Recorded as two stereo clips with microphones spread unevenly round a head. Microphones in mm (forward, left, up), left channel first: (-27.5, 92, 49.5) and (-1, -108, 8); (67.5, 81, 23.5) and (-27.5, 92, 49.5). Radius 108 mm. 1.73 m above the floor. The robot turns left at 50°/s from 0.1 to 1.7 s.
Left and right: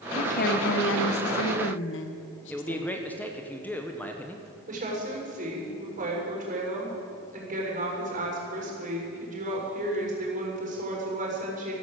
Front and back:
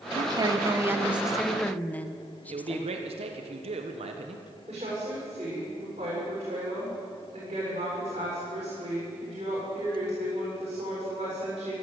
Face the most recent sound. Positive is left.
turn(degrees=-140)